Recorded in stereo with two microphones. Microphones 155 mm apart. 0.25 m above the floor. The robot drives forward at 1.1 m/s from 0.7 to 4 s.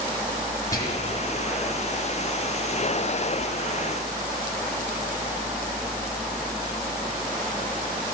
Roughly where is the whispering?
Left.